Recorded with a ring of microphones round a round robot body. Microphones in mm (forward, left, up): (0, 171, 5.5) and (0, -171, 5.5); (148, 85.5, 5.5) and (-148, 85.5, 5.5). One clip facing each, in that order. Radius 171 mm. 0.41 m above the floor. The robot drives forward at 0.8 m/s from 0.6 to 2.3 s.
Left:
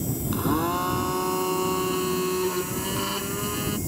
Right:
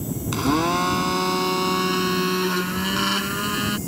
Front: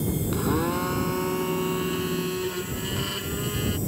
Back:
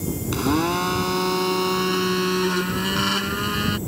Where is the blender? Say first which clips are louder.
Right 4 dB, back 5 dB; 130° right; by 3.8 s 140° right.